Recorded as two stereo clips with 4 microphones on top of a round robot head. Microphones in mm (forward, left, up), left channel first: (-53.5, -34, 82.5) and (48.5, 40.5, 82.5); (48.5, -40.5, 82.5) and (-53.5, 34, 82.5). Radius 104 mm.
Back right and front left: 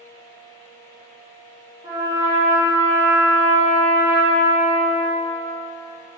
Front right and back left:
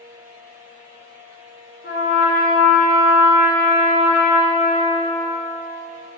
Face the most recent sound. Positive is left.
turn(degrees=-30)